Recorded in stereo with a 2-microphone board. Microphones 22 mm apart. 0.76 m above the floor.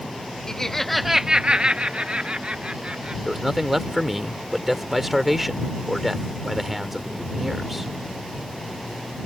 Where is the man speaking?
10° right (ahead or behind).